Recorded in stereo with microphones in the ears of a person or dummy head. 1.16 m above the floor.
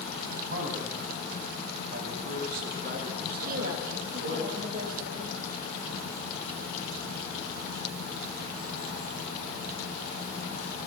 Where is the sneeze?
No sneeze in this recording.